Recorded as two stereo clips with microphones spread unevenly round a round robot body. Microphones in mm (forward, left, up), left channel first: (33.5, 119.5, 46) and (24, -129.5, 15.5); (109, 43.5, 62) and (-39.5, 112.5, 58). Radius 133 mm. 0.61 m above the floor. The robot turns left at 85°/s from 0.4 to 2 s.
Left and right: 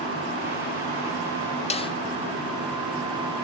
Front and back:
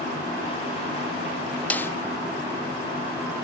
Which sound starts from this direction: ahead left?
A snare drum, at 1.7 s.